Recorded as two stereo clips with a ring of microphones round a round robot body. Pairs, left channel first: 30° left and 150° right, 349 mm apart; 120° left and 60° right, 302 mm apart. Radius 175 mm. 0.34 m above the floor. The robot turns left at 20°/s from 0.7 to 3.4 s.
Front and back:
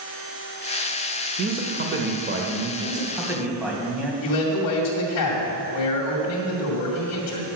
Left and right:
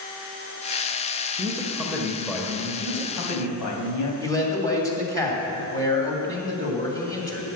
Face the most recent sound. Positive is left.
turn(degrees=45)